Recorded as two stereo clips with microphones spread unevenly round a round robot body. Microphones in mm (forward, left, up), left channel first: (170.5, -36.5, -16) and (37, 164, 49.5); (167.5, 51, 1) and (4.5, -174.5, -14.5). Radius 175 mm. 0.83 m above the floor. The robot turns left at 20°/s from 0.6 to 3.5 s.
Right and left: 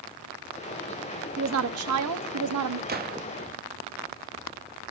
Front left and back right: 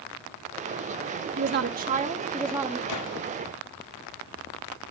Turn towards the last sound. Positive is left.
turn(degrees=55)